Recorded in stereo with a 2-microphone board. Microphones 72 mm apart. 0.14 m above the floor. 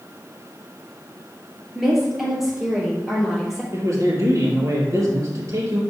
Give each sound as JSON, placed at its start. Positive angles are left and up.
{"t": 1.8, "sound": "a woman speaking", "side_deg": -5, "distance_m": 2.5}
{"t": 3.7, "sound": "a man speaking", "side_deg": -45, "distance_m": 3.0}